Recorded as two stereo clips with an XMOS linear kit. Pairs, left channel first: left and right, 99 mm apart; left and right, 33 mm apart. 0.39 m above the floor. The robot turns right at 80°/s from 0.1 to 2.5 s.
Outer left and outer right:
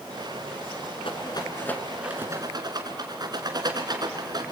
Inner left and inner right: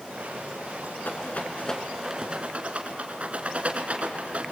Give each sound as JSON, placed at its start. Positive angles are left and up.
{"t": 1.1, "sound": "a rattle", "side_deg": 70, "distance_m": 2.5}